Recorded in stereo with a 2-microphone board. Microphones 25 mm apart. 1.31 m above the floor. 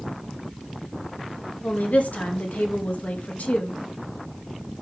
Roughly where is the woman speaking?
Left.